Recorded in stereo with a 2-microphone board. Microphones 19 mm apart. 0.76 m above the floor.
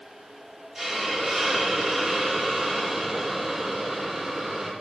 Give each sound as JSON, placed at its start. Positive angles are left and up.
{"t": 0.8, "sound": "a hiss", "side_deg": -10, "distance_m": 1.5}